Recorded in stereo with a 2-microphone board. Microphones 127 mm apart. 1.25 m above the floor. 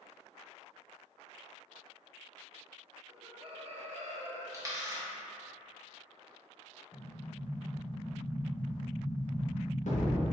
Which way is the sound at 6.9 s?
70° left (ahead or behind).